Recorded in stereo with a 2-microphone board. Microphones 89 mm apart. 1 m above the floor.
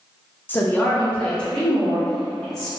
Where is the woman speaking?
25° left (ahead or behind), 0.6 m; by 2.7 s 5° left (ahead or behind), 2.5 m.